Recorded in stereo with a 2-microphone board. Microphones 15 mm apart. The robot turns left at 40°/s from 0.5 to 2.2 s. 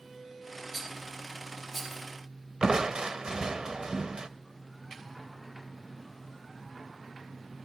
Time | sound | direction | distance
0.7 | a rattle | 25° right (ahead or behind) | 4 m
2.6 | crushing | 50° right (ahead or behind) | 0.5 m